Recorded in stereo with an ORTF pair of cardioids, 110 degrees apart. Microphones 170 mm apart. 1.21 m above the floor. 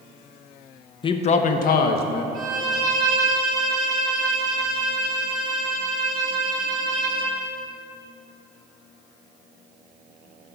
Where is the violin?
25° right, 2.5 m.